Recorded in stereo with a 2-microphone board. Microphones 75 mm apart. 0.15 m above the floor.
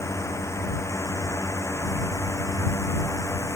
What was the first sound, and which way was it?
A drone, 40° left (ahead or behind).